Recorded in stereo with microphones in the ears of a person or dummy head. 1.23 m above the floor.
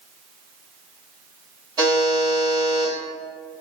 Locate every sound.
1.8 s a buzzer: 25° right (ahead or behind), 1.5 m